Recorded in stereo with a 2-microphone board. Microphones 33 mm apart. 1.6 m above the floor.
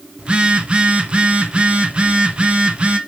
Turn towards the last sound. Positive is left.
turn(degrees=-30)  # may be behind; listen again after turning